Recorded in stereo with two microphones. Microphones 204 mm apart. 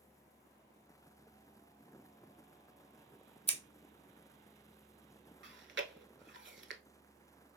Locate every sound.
3.5 s scissors: 30° left (ahead or behind), 0.7 m
5.4 s chewing: 60° right (ahead or behind), 0.6 m